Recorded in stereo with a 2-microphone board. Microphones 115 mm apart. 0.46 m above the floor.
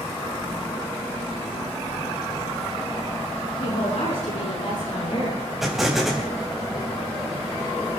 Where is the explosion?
Centre (ahead or behind), 3.5 m.